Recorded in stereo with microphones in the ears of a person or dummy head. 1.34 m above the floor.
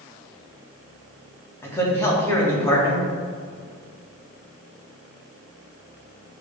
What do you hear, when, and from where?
1.6 s a man speaking: 15° left (ahead or behind), 2.0 m